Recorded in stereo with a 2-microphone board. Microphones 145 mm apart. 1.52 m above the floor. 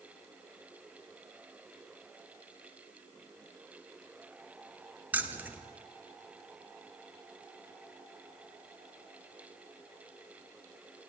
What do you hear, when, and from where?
5.1 s keys jangling: 10° right (ahead or behind), 0.8 m